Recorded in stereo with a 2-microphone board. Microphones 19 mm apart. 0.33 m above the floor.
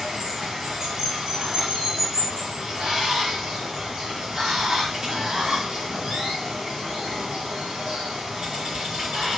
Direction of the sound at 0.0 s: 45° right (ahead or behind).